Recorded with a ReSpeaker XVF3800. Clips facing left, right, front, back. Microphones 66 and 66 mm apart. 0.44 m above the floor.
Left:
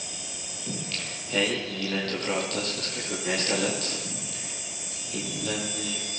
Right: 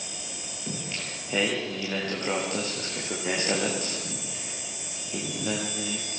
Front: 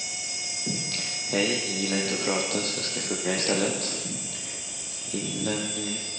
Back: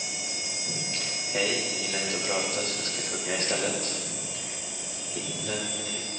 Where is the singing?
15° right, 10 m.